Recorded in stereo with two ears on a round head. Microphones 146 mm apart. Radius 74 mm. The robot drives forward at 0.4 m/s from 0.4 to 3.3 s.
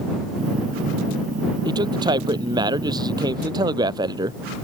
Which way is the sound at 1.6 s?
30° right (ahead or behind).